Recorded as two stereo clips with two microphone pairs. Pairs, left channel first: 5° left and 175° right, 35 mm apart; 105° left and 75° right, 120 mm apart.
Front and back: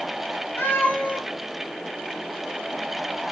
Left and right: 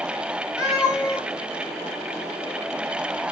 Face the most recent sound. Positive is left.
turn(degrees=10)